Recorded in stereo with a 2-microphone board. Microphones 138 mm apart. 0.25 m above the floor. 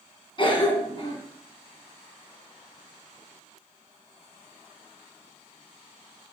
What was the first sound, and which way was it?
A cough, 40° left (ahead or behind).